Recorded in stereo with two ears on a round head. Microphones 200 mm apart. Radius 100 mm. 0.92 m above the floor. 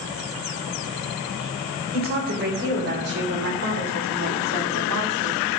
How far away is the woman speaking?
About 4 m.